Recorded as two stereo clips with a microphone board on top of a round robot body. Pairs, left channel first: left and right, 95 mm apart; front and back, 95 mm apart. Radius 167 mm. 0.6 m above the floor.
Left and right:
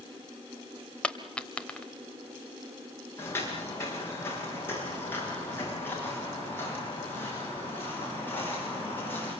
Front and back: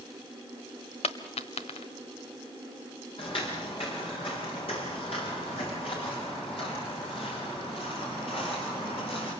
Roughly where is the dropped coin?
Ahead.